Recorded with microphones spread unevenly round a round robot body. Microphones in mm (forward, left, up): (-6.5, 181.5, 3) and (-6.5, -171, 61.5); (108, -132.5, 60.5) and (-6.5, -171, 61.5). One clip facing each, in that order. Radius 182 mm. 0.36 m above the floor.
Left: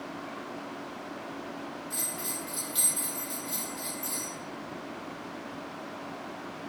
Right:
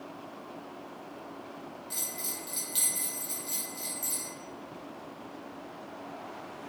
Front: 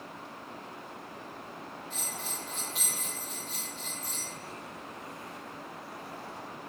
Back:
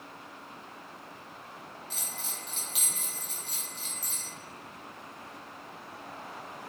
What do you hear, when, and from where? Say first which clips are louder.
1.9 s a bell: left 4 dB, front 3 dB; 160° right, 0.8 m